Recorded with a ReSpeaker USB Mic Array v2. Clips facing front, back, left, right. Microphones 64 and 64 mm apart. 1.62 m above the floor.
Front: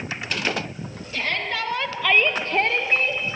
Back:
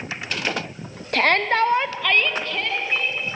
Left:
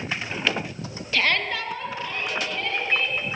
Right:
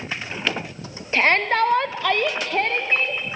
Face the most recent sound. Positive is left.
turn(degrees=-35)